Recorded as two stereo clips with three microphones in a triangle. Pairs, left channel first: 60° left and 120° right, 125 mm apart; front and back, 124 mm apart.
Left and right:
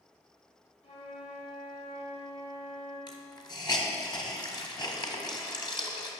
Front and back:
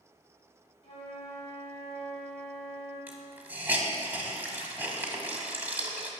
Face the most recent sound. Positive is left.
turn(degrees=105)